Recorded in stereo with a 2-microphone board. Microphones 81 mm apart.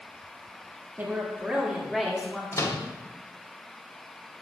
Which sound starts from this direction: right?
A woman speaking, at 1.0 s.